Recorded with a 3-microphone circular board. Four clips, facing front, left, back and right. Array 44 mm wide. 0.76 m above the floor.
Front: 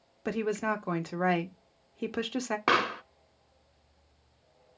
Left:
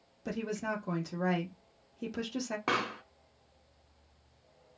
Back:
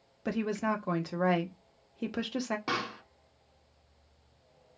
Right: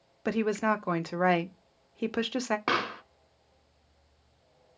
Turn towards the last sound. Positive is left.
turn(degrees=-20)